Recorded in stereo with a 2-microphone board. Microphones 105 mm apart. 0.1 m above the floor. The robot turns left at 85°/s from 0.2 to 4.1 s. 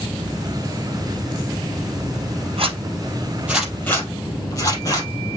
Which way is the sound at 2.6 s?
65° right (ahead or behind).